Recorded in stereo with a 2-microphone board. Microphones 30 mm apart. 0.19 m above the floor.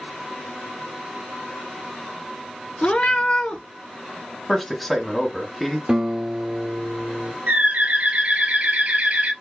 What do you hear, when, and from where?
2.8 s a cat meowing: 45° left (ahead or behind), 0.6 m
4.5 s a man speaking: 5° left (ahead or behind), 1.0 m
5.9 s a guitar: 20° right (ahead or behind), 1.2 m
7.5 s a bird: 65° right (ahead or behind), 0.9 m